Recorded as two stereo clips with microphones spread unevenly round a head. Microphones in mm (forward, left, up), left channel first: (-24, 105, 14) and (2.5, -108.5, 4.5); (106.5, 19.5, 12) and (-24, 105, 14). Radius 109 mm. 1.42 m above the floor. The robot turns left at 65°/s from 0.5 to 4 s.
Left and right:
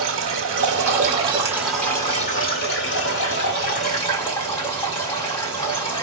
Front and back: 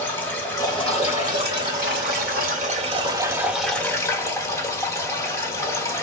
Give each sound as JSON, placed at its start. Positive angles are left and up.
{"t": 0.0, "sound": "running water", "azimuth_deg": -95, "distance_m": 1.5}